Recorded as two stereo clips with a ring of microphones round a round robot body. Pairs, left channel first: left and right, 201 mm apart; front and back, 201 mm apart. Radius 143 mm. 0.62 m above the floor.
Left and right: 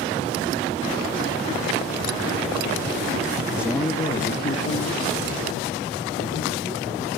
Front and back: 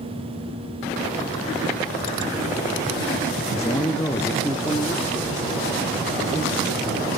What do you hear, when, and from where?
3.5 s a man speaking: 40° right, 0.7 m; by 7.1 s 85° left, 3.5 m